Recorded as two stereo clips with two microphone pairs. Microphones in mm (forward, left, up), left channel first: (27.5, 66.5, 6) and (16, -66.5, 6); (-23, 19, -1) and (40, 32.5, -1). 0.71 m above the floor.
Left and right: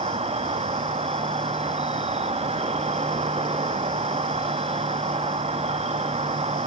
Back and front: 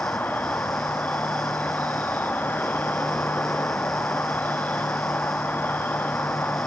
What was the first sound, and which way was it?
An insect, 110° right.